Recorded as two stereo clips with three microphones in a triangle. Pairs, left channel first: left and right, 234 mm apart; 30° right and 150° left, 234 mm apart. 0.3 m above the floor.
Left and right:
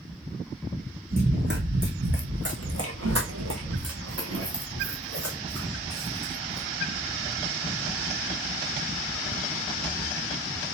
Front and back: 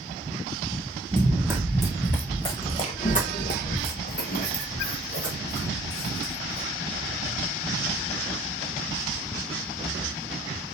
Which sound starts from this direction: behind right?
Running footsteps, at 1.1 s.